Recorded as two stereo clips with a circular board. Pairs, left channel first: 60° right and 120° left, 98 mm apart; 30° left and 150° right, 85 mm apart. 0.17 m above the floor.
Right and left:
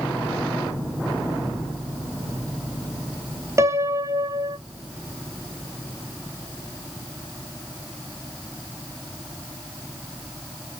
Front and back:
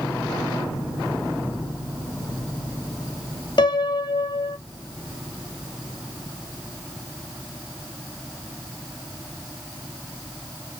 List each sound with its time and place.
3.6 s a piano: 60° left, 0.7 m